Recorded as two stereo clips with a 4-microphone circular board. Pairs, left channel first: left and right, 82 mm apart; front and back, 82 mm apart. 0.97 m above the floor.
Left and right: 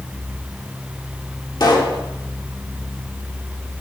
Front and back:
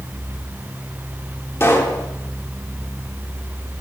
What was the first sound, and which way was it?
A pop, 60° left.